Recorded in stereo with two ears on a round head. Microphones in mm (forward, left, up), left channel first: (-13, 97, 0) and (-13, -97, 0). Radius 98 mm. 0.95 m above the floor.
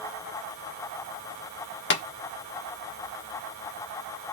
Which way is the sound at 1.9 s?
55° left (ahead or behind).